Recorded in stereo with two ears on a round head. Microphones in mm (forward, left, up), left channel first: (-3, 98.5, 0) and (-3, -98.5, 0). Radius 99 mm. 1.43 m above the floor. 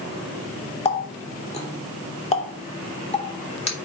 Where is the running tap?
30° left (ahead or behind), 2.5 m.